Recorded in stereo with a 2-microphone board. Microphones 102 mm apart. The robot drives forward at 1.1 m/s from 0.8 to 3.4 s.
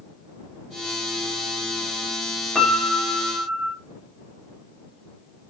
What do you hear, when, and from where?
2.5 s a piano: 5° right (ahead or behind), 2.5 m